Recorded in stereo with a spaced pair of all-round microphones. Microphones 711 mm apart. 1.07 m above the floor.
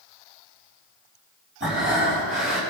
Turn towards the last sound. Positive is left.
turn(degrees=-15)  # may be behind; listen again after turning